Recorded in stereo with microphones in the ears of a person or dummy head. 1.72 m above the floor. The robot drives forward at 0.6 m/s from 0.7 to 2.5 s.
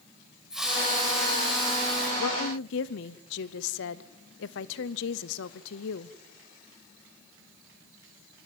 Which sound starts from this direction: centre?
A hiss, at 0.5 s.